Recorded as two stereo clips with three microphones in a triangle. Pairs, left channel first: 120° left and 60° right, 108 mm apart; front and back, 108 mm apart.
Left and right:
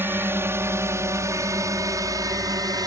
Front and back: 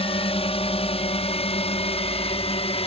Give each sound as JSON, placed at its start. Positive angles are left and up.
{"t": 0.0, "sound": "a drone", "azimuth_deg": 5}